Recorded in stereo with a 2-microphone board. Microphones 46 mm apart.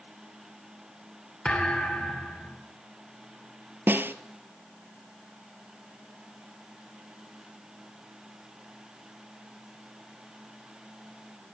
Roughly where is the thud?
Left.